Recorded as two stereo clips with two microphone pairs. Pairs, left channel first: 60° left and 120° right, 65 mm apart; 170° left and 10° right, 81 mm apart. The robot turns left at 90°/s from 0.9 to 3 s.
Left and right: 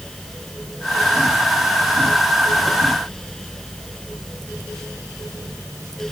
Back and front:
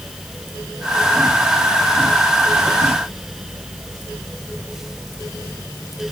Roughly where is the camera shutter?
No camera shutter in this recording.